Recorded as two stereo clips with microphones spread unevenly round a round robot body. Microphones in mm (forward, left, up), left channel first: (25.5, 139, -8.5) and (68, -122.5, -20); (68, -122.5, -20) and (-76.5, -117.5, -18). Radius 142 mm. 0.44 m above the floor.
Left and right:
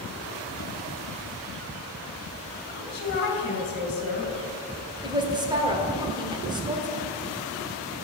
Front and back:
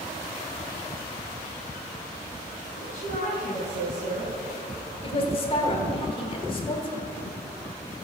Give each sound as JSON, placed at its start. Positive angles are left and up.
{"t": 2.7, "sound": "a woman speaking", "azimuth_deg": 50, "distance_m": 4.0}
{"t": 5.0, "sound": "a woman speaking", "azimuth_deg": -20, "distance_m": 1.5}